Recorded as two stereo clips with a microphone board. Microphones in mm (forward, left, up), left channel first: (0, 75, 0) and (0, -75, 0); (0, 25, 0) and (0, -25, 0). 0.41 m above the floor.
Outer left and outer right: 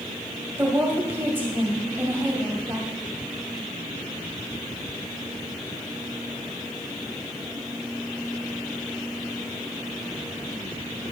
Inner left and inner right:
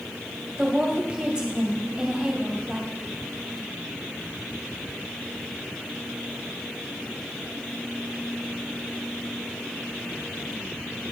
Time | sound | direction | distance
0.6 | a woman speaking | 15° right (ahead or behind) | 2 m